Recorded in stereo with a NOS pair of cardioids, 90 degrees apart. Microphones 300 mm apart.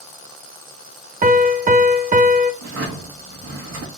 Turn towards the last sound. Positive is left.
turn(degrees=-65)